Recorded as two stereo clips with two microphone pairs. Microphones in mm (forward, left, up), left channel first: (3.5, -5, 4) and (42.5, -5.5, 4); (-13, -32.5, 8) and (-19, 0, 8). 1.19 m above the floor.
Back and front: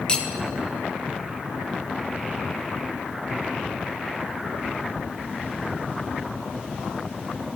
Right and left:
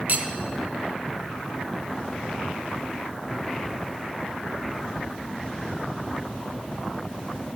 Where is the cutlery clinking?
115° left, 0.7 m.